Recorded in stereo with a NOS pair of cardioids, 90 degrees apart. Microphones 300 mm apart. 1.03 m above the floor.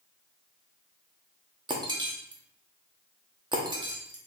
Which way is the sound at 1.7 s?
15° right.